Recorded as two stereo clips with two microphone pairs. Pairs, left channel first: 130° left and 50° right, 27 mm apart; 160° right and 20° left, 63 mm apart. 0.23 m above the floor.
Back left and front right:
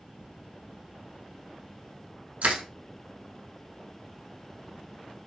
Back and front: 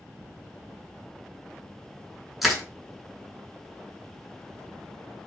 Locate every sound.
2.4 s crushing: 70° right, 0.6 m